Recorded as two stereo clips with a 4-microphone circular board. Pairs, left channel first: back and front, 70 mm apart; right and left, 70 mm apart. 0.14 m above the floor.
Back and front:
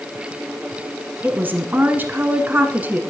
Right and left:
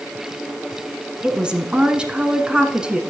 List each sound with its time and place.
1.2 s a woman speaking: 30° left, 1.2 m